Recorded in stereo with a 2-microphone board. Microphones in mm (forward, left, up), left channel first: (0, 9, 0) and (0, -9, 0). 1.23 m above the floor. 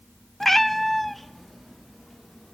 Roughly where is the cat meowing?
Centre.